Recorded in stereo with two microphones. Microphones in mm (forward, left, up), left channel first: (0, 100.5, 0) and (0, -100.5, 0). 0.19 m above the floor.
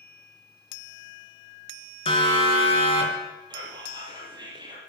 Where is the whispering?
20° right (ahead or behind), 4 m.